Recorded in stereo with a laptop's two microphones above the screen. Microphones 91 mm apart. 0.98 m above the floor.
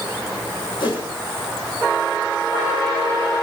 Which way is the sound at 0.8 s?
70° left (ahead or behind).